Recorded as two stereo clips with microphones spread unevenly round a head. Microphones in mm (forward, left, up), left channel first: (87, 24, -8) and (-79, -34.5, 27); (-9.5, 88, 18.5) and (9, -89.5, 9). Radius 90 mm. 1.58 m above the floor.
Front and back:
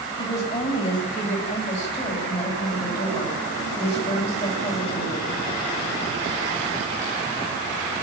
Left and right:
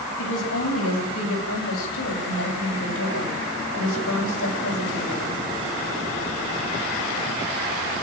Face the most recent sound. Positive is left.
turn(degrees=80)